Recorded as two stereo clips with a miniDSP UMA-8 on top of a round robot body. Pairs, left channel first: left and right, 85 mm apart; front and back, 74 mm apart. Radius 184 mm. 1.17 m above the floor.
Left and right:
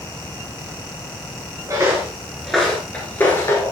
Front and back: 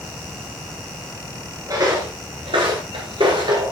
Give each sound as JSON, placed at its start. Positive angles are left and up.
{"t": 1.7, "sound": "footsteps", "azimuth_deg": -145, "distance_m": 1.3}